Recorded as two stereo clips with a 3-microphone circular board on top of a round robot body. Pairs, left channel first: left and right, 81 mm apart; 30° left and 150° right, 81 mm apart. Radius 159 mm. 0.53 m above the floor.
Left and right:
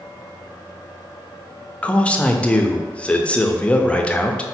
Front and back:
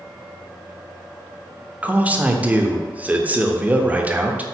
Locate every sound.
1.8 s a man speaking: 155° left, 0.7 m